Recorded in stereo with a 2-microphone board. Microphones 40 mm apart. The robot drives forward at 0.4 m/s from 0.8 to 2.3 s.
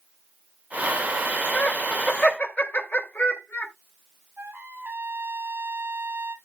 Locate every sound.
1.5 s laughter: 40° left (ahead or behind), 3 m; by 3.7 s 45° left (ahead or behind), 2.5 m
4.4 s a trumpet: 45° right (ahead or behind), 4 m